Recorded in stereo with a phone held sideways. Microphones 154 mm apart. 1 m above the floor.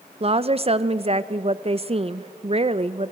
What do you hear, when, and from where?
0.2 s a woman speaking: 40° right (ahead or behind), 0.6 m